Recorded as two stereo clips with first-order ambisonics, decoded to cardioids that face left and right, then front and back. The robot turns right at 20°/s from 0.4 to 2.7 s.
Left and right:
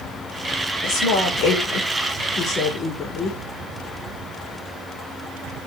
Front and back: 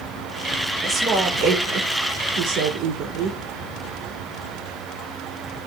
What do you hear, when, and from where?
0.8 s a woman speaking: 110° left, 5 m; by 3.4 s 145° left, 5 m